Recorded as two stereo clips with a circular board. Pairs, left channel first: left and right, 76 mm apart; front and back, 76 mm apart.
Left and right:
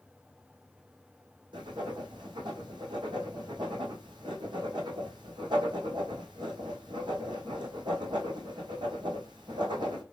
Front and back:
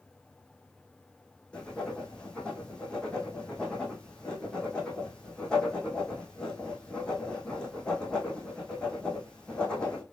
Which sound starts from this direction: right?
Writing, at 1.5 s.